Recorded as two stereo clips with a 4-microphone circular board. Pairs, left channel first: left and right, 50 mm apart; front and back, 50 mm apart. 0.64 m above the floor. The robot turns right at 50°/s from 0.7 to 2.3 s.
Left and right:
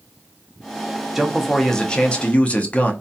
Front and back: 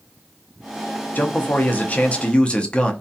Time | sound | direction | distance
1.1 | a man speaking | 5° right | 0.6 m